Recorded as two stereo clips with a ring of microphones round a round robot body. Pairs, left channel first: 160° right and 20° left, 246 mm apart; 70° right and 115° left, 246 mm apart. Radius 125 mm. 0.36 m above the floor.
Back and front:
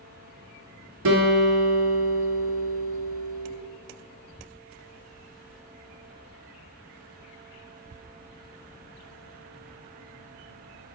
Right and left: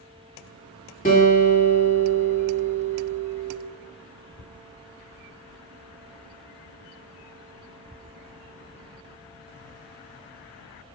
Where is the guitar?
10° right, 2 m.